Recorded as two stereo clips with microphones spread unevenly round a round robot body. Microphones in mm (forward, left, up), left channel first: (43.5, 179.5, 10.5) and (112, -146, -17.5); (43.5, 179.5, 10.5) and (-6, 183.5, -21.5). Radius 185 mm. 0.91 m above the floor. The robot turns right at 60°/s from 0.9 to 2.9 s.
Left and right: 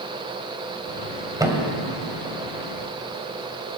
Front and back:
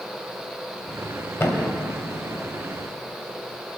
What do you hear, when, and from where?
1.4 s a thud: straight ahead, 1.7 m; by 1.7 s 20° left, 1.7 m